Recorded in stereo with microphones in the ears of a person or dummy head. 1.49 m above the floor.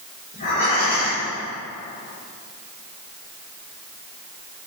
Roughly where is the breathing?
Left.